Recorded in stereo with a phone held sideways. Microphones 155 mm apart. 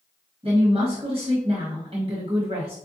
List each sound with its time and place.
0.4 s a woman speaking: 35° right (ahead or behind), 1.3 m